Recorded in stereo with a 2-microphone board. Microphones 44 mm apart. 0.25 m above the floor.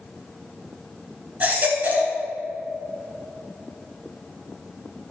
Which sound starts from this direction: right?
A baby crying, at 1.4 s.